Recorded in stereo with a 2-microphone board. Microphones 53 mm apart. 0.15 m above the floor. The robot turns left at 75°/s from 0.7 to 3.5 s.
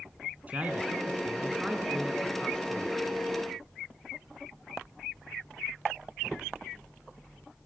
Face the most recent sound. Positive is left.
turn(degrees=75)